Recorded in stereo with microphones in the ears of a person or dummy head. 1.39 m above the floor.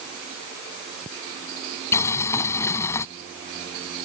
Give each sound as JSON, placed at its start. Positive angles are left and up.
{"t": 1.9, "sound": "boiling", "side_deg": 15}